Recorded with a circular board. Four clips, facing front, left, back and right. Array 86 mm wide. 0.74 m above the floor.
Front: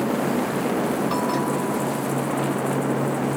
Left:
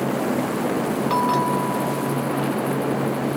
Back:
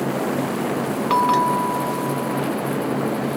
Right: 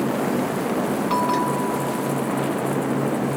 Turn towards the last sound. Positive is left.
turn(degrees=175)